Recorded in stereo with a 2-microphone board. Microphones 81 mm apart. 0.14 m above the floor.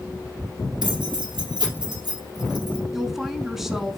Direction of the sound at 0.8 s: 65° right (ahead or behind).